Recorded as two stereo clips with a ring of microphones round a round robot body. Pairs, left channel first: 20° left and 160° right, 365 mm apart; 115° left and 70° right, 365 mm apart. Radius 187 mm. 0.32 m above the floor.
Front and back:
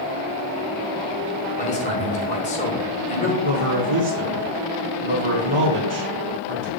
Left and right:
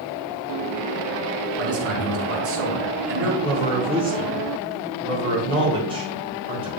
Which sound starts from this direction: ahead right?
A man speaking, at 1.6 s.